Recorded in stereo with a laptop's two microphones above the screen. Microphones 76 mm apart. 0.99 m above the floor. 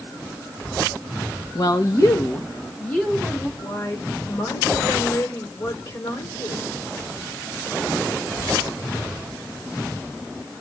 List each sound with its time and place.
1.6 s a woman speaking: 55° left (ahead or behind), 1.0 m; by 3.5 s 10° left (ahead or behind), 2.5 m
3.6 s a woman speaking: 70° left (ahead or behind), 4 m